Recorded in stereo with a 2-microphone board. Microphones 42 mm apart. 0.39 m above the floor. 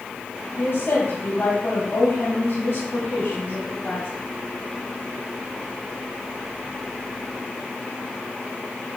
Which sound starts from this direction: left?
A woman speaking, at 0.6 s.